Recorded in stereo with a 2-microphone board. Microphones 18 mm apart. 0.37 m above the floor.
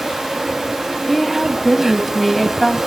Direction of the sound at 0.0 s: 15° right (ahead or behind).